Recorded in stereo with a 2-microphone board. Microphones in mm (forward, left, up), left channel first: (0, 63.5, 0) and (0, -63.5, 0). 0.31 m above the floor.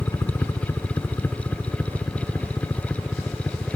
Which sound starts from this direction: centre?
A helicopter, at 0.0 s.